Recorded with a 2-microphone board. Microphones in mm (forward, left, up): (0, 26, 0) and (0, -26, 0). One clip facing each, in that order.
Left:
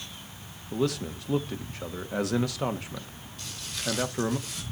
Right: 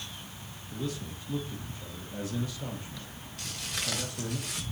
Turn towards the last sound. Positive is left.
turn(degrees=-60)  # may be behind; listen again after turning